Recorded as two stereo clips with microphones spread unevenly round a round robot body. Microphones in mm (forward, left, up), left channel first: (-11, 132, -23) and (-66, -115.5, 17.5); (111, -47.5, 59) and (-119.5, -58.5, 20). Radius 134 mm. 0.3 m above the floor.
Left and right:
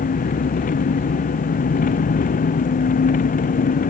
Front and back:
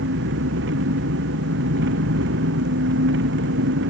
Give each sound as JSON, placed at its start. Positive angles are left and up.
{"t": 0.0, "sound": "an engine running", "azimuth_deg": 135}